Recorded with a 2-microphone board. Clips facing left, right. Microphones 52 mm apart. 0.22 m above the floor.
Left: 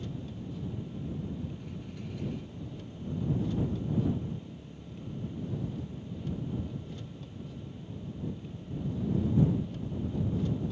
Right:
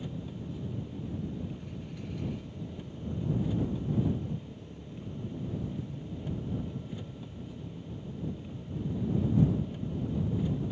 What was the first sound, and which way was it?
An engine running, 15° right (ahead or behind).